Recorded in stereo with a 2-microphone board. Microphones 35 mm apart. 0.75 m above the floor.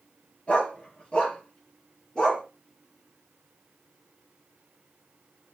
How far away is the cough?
No cough in this recording.